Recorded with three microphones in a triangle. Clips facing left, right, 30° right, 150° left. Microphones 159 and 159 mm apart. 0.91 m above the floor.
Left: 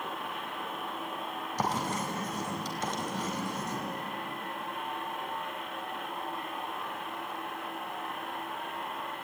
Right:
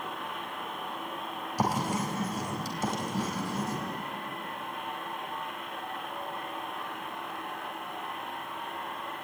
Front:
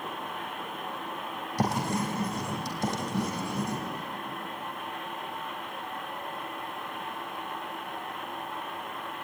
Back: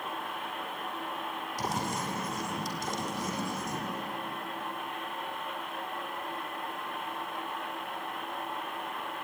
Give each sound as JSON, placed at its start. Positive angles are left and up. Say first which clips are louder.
{"t": 1.6, "sound": "writing", "louder": "right 3 dB, front 6 dB", "azimuth_deg": -10, "distance_m": 4.0}